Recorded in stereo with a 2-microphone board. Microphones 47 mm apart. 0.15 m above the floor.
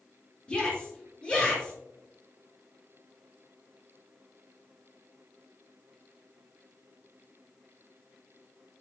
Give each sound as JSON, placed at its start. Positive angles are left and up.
{"t": 0.5, "sound": "a shout", "side_deg": 25, "distance_m": 3.5}